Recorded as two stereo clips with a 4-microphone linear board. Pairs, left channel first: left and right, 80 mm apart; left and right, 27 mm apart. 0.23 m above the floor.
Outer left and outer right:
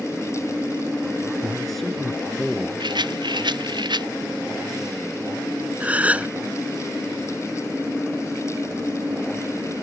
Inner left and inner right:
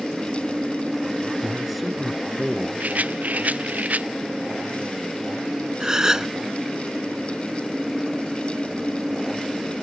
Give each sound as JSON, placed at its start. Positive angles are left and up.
{"t": 1.4, "sound": "a man speaking", "side_deg": 0}
{"t": 2.8, "sound": "a rattle", "side_deg": -80}
{"t": 5.8, "sound": "a gasp", "side_deg": -20}